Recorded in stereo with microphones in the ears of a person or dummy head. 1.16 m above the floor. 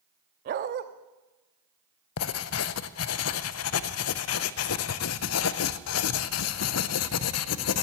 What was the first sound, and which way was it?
A dog barking, 45° right (ahead or behind).